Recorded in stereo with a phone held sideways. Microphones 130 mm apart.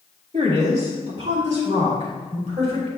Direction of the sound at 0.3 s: 55° right (ahead or behind).